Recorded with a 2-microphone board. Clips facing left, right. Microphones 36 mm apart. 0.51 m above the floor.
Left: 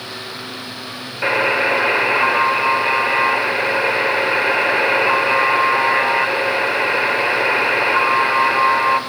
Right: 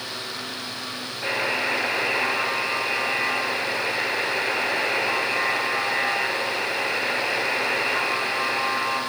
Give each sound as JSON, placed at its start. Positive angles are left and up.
{"t": 1.2, "sound": "a buzzer", "side_deg": 55, "distance_m": 2.5}